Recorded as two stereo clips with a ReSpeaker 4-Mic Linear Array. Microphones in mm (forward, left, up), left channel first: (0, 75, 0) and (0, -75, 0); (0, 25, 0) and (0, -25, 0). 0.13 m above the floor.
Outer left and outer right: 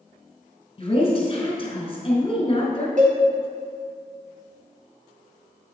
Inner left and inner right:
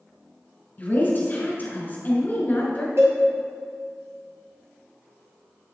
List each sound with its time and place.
0.8 s a woman speaking: 40° left (ahead or behind), 1.7 m
3.0 s a cowbell: 60° right (ahead or behind), 1.7 m